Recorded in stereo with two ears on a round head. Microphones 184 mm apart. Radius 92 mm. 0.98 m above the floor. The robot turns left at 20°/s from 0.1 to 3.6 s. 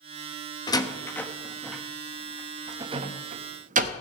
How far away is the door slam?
About 0.9 m.